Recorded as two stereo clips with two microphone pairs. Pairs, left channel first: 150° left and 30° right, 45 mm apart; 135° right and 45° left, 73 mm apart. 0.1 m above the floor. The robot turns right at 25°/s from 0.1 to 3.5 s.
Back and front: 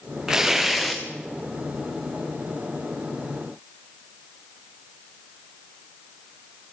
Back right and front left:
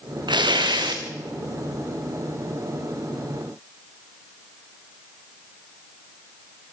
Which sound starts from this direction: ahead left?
Tearing paper, at 0.3 s.